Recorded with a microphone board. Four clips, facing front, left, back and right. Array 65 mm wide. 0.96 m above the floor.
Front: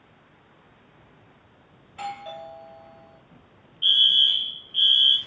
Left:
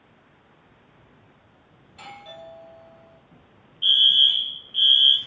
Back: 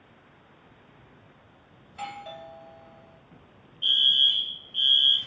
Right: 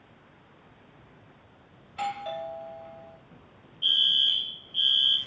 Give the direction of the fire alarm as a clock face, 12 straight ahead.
10 o'clock.